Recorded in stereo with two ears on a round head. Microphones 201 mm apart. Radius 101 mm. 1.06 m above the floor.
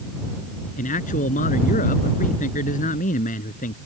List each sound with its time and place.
0.8 s a man speaking: 35° left (ahead or behind)